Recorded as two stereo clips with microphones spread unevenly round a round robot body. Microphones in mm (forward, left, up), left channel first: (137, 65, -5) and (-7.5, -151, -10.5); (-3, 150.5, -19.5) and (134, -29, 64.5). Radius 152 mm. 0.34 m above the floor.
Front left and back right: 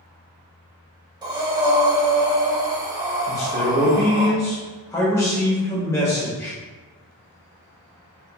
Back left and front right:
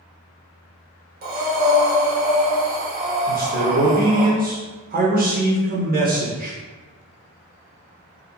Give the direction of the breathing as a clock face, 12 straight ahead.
3 o'clock.